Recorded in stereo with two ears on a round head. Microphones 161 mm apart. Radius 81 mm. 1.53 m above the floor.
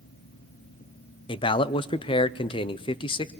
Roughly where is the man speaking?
Left.